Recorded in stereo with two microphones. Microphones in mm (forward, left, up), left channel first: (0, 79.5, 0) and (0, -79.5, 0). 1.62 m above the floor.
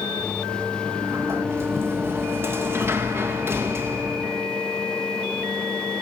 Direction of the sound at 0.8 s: 15° right (ahead or behind).